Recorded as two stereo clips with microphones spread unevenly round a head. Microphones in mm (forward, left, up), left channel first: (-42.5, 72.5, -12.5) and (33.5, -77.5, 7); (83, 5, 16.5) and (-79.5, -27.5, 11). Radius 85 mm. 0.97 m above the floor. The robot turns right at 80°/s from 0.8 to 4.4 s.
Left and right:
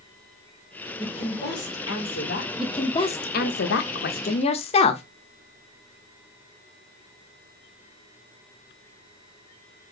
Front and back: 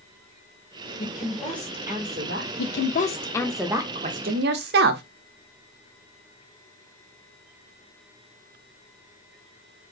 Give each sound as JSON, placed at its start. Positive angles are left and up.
{"t": 1.0, "sound": "a woman speaking", "azimuth_deg": 45, "distance_m": 2.5}
{"t": 2.6, "sound": "a woman speaking", "azimuth_deg": 25, "distance_m": 0.6}